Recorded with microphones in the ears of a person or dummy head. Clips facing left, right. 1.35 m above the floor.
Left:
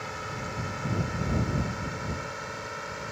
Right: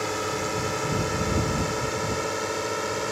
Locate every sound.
0.0 s a drone: 55° right (ahead or behind); by 3.1 s 60° right (ahead or behind)